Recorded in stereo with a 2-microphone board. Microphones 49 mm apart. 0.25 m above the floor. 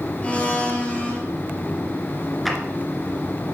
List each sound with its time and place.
0.2 s a blender: 25° left (ahead or behind), 3 m
2.5 s a clap: centre (ahead or behind), 2.5 m